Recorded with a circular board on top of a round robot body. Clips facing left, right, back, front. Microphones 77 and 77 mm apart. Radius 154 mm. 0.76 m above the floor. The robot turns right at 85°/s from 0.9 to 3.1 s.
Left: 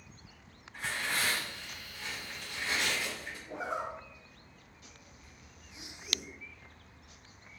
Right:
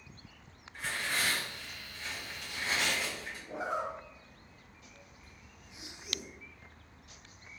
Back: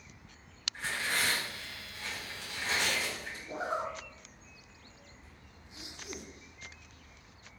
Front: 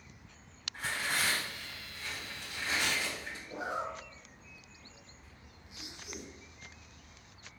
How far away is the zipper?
About 1.0 m.